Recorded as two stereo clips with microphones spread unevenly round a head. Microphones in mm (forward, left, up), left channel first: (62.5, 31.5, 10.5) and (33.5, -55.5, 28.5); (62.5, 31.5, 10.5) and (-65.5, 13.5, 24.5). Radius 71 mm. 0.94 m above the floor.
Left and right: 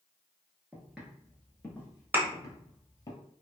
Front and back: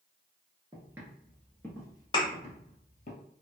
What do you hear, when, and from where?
0.7 s footsteps: 160° right, 1.0 m; by 3.1 s 20° left, 1.4 m
2.1 s a thud: 55° right, 0.8 m